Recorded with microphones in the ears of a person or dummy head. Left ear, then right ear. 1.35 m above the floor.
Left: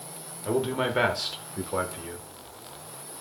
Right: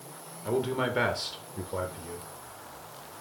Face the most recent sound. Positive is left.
turn(degrees=45)  # may be behind; listen again after turning